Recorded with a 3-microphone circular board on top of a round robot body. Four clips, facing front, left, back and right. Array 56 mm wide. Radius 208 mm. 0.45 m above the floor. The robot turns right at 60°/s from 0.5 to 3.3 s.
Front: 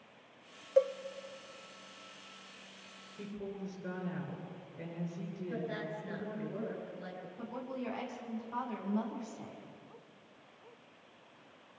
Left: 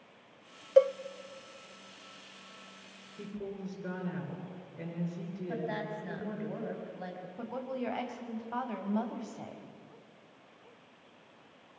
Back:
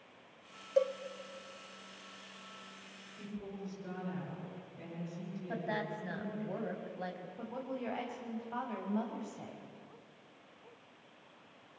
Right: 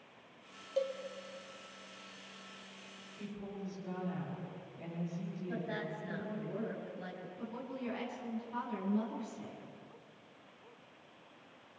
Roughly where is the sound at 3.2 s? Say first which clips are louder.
Left 4 dB, front 2 dB; ahead left.